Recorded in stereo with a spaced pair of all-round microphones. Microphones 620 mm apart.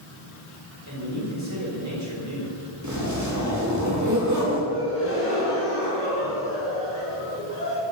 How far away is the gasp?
About 5 m.